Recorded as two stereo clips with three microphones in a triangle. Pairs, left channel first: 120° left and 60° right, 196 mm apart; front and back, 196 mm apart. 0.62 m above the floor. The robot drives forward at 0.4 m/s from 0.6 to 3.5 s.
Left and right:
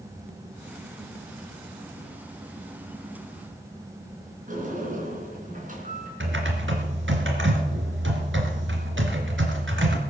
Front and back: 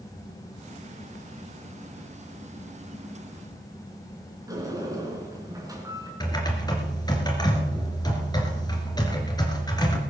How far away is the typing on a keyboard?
About 2.5 m.